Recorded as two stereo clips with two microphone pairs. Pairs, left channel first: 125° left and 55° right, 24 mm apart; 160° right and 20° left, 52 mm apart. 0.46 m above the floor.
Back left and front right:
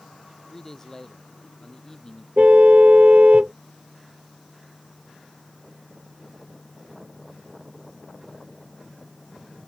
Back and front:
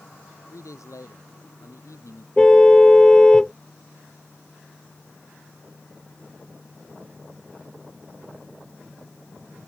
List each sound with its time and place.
0.5 s a man speaking: 165° right; by 2.3 s 170° right
2.4 s a car horn: 80° right